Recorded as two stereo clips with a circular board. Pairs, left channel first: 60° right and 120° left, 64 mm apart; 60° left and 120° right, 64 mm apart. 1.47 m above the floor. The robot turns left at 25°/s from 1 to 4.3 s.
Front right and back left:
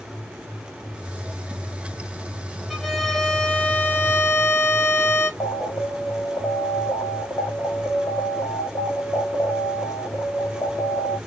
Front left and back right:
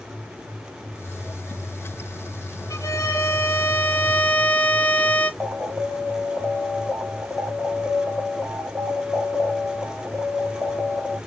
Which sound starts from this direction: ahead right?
An alarm, at 5.4 s.